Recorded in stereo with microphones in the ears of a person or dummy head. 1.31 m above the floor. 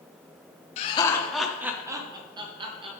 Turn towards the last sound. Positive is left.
turn(degrees=-30)  # may be behind; listen again after turning